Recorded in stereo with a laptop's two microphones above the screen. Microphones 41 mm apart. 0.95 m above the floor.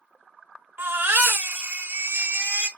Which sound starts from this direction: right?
A baby crying, at 0.8 s.